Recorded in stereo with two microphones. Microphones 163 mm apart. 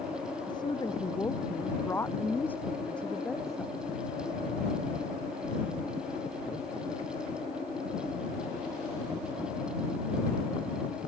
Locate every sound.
0.5 s a woman speaking: 25° left (ahead or behind); by 3.7 s centre (ahead or behind)